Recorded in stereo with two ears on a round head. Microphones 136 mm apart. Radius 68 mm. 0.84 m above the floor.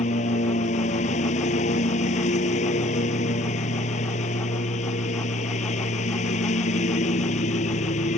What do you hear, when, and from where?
0.0 s a lawn mower: 50° left (ahead or behind)